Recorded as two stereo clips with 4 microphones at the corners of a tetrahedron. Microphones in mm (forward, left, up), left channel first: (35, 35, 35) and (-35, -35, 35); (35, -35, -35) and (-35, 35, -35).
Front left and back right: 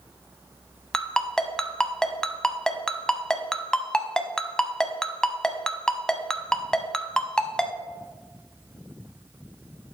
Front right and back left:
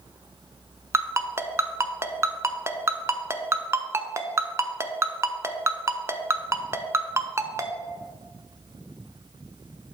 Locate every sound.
0.9 s a ringtone: 125° left, 0.7 m